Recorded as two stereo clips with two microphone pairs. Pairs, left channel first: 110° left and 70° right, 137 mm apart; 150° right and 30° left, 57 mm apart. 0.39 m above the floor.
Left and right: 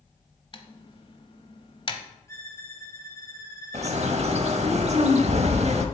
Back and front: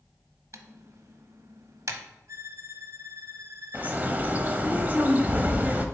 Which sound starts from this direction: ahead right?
A bird, at 3.7 s.